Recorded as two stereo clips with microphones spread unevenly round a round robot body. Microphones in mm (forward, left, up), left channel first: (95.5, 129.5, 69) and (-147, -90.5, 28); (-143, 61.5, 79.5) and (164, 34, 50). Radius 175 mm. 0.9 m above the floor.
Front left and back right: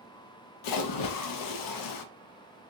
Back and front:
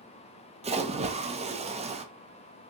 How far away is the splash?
About 0.5 m.